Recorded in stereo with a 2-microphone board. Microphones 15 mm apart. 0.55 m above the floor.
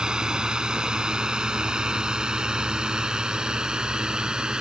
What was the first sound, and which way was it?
A drone, 55° right (ahead or behind).